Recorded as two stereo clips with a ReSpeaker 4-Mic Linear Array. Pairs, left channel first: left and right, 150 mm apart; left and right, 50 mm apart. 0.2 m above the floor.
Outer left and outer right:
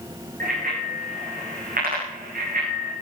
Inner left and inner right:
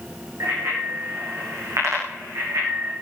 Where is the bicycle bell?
80° right, 9.5 m.